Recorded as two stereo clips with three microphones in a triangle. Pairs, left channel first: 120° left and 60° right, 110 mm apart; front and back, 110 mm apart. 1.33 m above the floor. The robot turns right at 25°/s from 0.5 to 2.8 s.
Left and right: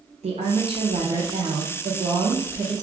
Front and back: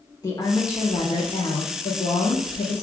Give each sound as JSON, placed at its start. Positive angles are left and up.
{"t": 0.2, "sound": "a woman speaking", "azimuth_deg": -55, "distance_m": 0.7}